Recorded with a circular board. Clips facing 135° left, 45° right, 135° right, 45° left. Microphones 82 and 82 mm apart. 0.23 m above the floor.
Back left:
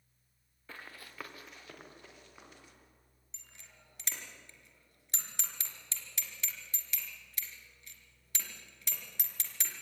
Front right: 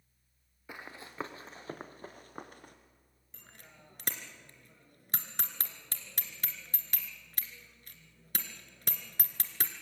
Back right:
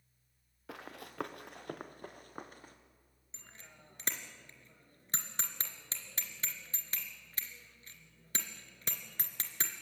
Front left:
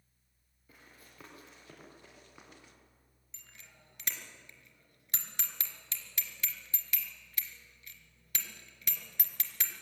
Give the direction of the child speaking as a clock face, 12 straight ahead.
I don't hear a child speaking.